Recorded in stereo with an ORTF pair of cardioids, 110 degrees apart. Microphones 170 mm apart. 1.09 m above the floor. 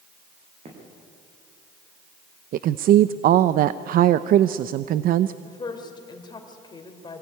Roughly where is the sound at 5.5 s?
Ahead left.